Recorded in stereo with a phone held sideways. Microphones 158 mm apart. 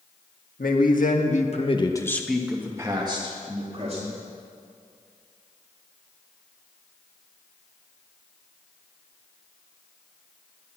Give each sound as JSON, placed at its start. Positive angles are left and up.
{"t": 0.6, "sound": "a man speaking", "side_deg": 75, "distance_m": 2.0}